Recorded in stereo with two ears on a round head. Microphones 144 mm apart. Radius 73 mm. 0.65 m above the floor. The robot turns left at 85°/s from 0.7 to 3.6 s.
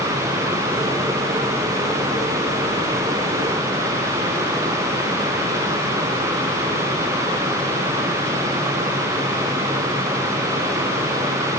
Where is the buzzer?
No buzzer in this recording.